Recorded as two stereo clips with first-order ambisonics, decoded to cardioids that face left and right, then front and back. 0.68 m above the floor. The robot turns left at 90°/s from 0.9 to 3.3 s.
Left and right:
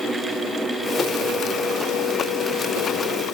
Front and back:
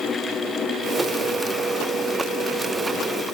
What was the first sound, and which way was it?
Only background noise.